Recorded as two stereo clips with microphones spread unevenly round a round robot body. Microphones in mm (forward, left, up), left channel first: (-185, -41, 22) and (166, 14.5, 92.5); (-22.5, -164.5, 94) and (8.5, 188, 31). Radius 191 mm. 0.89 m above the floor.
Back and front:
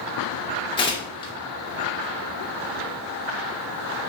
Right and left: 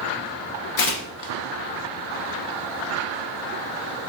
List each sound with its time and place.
0.8 s tearing paper: 85° right, 0.5 m